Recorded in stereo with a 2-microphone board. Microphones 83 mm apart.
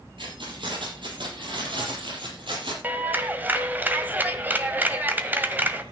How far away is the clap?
About 1.7 m.